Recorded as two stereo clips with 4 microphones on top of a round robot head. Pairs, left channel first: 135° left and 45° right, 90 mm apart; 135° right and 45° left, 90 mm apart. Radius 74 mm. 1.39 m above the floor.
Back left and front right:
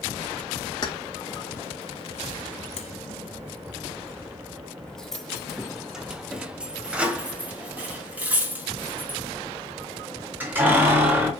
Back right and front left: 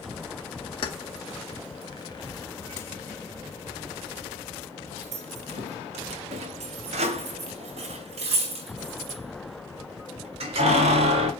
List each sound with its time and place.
0.8 s keys jangling: 175° right, 1.6 m; by 11.3 s 25° left, 4 m